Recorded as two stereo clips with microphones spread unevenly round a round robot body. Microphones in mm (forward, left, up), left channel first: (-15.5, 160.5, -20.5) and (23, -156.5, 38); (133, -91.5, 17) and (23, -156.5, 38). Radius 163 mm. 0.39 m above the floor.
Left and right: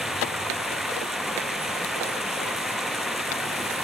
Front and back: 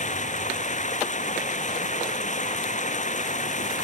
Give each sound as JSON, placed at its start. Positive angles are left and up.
{"t": 0.0, "sound": "running water", "azimuth_deg": 5}